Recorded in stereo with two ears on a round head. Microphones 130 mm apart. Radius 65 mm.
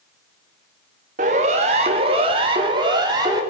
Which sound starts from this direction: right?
A siren, at 1.2 s.